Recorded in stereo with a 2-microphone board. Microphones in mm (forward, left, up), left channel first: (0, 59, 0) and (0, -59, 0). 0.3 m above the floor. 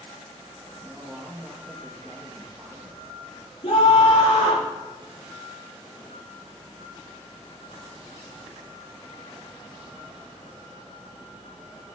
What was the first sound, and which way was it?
A man speaking, centre (ahead or behind).